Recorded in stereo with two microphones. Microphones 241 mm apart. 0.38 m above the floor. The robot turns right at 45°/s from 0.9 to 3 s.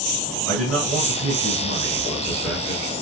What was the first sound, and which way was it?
A man speaking, 70° right.